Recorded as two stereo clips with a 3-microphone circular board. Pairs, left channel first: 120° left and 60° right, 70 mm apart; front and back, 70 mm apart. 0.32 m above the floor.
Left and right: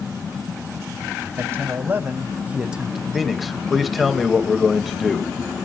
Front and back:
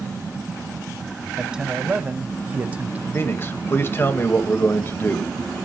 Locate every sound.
1.4 s a man speaking: 105° right, 1.6 m; by 3.0 s 145° right, 0.9 m
3.1 s a man speaking: 30° left, 1.6 m